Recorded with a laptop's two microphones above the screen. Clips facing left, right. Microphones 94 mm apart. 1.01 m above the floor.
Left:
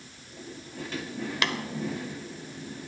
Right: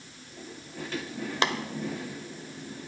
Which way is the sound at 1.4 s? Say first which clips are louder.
Right 3 dB; 30° right (ahead or behind).